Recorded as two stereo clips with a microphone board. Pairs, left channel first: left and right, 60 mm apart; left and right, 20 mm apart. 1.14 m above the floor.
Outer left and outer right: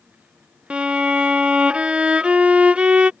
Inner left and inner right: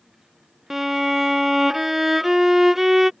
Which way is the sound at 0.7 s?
20° right (ahead or behind).